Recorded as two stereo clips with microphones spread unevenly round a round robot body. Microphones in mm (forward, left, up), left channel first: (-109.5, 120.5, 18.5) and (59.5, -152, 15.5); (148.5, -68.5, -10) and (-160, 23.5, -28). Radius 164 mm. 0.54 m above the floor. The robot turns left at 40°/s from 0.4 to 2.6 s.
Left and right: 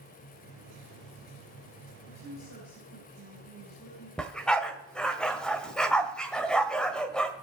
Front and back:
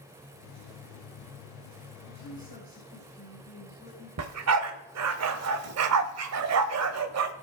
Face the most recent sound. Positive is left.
turn(degrees=-150)